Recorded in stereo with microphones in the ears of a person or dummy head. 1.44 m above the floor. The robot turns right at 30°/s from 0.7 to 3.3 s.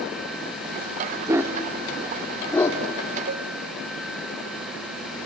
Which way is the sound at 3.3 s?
80° right.